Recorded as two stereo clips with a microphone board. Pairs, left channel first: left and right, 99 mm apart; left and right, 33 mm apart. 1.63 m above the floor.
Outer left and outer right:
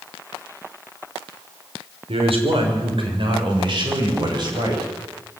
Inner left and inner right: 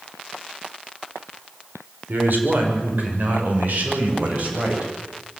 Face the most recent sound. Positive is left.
turn(degrees=-50)  # may be behind; listen again after turning